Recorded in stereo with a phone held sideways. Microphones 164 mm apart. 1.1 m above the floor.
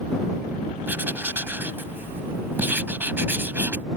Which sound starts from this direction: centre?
Writing, at 0.9 s.